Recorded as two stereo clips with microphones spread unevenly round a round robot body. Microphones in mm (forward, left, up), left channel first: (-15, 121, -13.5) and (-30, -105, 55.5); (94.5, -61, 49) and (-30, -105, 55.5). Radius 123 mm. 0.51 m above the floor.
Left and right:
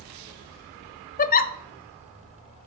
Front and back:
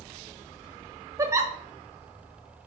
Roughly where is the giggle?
Behind left.